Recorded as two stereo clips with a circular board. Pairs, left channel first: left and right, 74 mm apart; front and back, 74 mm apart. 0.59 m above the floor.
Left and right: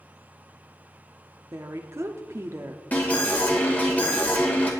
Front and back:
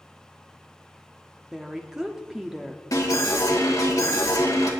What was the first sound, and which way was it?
A woman speaking, 105° right.